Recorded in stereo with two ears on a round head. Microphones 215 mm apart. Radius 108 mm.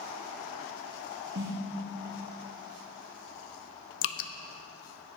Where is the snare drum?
50° right (ahead or behind), 3.5 m.